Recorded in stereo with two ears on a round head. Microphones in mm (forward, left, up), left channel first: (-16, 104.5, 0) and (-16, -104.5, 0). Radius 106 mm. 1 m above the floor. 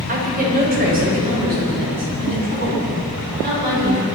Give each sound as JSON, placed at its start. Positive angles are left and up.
{"t": 0.1, "sound": "a woman speaking", "side_deg": -40, "distance_m": 4.0}